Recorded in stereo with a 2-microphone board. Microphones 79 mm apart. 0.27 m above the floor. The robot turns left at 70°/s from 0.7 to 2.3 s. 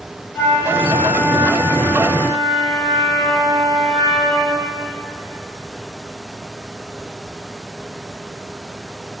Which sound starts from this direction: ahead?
A flute, at 0.3 s.